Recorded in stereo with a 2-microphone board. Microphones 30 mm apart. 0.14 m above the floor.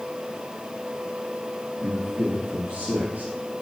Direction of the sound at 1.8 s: 70° right (ahead or behind).